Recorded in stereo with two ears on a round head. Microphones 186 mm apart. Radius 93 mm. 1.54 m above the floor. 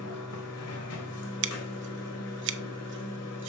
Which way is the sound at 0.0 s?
85° left.